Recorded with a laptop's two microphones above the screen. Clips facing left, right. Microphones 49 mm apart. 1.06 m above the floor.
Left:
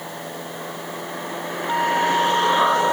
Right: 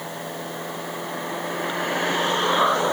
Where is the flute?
90° left.